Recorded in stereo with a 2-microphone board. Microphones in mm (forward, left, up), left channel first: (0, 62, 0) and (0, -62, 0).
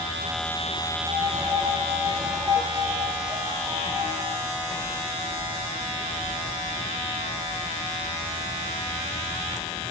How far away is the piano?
About 0.8 m.